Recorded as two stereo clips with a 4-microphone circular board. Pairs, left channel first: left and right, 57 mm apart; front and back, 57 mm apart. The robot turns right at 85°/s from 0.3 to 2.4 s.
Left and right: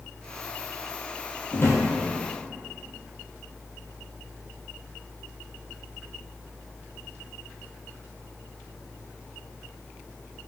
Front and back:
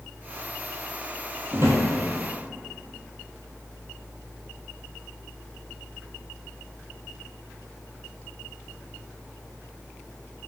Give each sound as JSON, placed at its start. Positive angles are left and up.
{"t": 1.5, "sound": "a drawer", "azimuth_deg": 125, "distance_m": 1.1}